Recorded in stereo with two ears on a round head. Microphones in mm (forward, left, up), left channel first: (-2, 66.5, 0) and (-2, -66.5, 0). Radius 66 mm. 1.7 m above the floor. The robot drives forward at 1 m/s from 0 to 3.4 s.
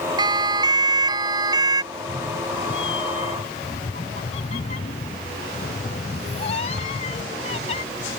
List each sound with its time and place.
0.2 s a siren: 30° right (ahead or behind); by 1.8 s 25° right (ahead or behind)
1.9 s a cat meowing: 30° left (ahead or behind); by 7.8 s 45° left (ahead or behind)